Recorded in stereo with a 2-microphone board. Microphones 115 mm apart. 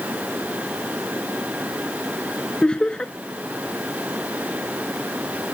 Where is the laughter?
10° left (ahead or behind).